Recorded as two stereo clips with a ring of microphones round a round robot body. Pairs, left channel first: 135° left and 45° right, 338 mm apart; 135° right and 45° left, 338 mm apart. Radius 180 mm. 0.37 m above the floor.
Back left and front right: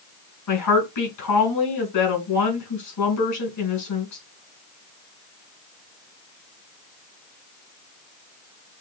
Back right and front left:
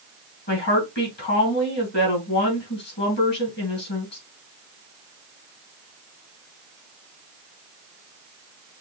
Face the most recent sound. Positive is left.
turn(degrees=170)